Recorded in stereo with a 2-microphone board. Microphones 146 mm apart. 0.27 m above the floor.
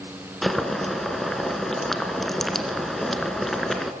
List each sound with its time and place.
0.4 s boiling: centre (ahead or behind), 2.5 m